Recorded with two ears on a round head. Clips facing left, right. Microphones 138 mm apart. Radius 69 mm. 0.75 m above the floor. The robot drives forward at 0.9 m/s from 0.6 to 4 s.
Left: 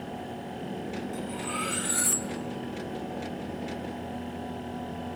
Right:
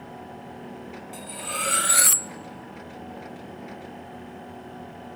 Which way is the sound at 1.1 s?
35° right (ahead or behind).